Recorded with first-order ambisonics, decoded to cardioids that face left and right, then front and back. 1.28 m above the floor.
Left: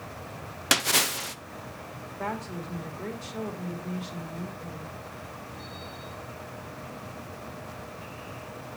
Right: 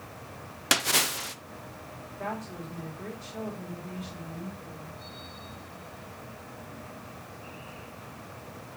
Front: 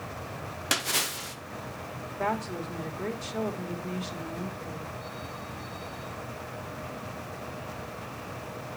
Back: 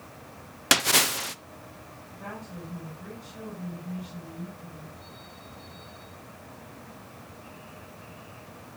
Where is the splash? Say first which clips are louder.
Left 1 dB, back 6 dB; 170° left, 0.5 m.